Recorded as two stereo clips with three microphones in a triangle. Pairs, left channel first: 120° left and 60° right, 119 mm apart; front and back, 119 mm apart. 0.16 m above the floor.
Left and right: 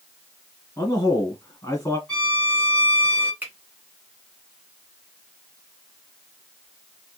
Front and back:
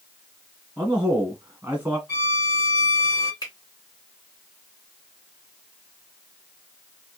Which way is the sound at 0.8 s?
125° left.